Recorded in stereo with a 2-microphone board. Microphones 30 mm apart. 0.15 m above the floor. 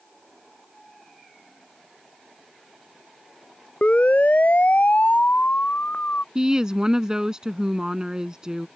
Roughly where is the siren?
Left.